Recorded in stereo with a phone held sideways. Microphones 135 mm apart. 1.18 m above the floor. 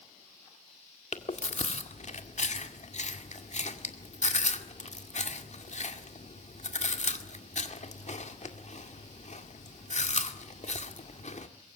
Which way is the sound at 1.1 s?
60° left (ahead or behind).